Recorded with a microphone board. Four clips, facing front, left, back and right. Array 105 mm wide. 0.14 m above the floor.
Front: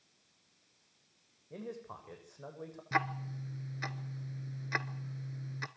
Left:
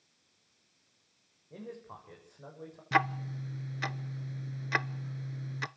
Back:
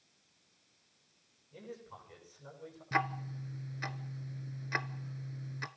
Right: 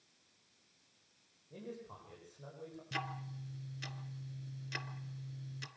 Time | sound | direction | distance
1.5 | a man speaking | 25° left | 9 m
2.9 | ticking | 85° left | 0.7 m